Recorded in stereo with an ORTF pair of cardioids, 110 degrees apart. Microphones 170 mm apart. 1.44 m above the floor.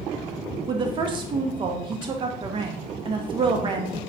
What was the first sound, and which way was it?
A woman speaking, 30° right.